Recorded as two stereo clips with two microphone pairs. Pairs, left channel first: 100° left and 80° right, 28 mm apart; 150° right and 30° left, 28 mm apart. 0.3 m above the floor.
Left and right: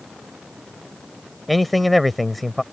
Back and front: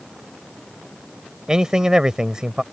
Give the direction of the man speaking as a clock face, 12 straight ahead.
12 o'clock.